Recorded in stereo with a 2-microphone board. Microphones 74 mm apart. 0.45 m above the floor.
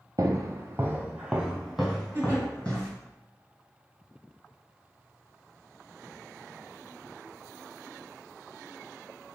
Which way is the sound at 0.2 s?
55° right (ahead or behind).